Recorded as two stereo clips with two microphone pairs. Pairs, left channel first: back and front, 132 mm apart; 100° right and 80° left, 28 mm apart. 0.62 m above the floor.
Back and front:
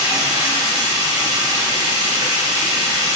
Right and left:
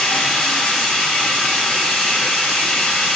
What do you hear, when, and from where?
0.0 s running water: 60° right, 0.7 m